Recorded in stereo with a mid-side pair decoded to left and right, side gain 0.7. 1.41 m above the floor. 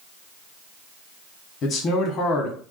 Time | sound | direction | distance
1.6 | a man speaking | 45° left | 1.3 m